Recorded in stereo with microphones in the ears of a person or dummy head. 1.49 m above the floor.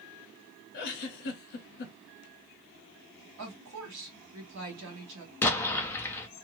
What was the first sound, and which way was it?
A giggle, 50° left (ahead or behind).